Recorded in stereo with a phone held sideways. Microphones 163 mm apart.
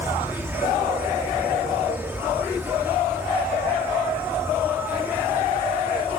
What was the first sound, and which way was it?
An insect, 10° right (ahead or behind).